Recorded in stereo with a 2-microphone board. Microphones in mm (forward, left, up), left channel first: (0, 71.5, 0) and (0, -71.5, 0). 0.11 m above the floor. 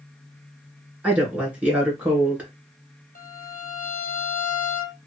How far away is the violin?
About 0.7 m.